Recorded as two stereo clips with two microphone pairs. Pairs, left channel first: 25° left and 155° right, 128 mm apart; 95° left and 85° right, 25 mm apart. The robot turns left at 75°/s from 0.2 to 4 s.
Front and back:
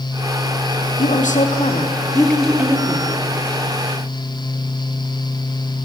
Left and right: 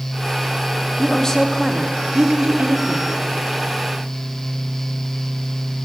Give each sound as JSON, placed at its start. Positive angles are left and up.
{"t": 1.0, "sound": "a woman speaking", "azimuth_deg": 40, "distance_m": 0.9}